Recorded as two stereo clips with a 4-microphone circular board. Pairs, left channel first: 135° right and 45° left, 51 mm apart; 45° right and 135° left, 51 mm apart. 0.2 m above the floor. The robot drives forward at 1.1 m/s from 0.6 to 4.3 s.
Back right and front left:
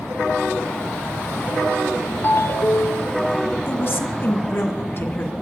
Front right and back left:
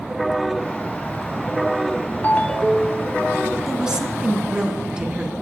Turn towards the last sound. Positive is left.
turn(degrees=-155)